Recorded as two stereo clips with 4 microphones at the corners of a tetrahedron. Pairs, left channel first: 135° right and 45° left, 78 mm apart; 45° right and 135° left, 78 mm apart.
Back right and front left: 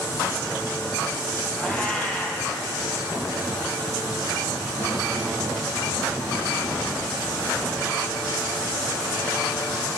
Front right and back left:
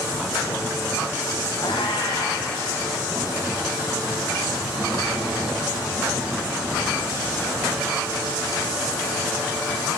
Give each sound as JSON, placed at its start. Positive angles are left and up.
{"t": 1.6, "sound": "a cat meowing", "azimuth_deg": -60, "distance_m": 4.0}